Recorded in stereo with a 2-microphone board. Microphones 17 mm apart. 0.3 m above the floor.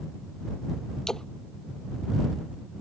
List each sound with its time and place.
1.1 s a splash: 30° left (ahead or behind)